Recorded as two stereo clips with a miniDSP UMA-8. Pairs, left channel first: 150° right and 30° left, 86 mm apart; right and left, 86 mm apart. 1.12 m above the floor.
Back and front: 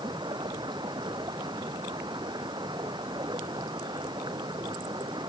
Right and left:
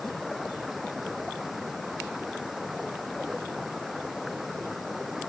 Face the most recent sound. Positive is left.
turn(degrees=0)